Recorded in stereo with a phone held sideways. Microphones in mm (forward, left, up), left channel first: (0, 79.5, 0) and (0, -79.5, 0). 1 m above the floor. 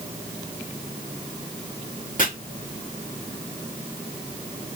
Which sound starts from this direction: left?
Chopping, at 2.2 s.